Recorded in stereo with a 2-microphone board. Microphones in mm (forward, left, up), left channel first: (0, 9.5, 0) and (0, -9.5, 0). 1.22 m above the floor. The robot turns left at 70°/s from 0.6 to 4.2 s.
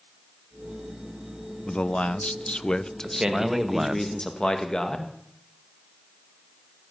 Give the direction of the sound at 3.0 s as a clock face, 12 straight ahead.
4 o'clock.